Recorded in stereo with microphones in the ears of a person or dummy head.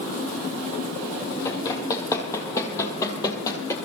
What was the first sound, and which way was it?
Running footsteps, 20° left (ahead or behind).